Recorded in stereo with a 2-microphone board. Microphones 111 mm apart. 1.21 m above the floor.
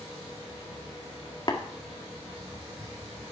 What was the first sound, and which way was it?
Tapping, 40° left (ahead or behind).